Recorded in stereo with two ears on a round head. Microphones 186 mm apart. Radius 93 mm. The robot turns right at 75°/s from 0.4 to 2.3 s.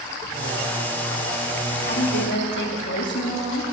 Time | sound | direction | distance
1.8 | a woman speaking | 55° left | 1.6 m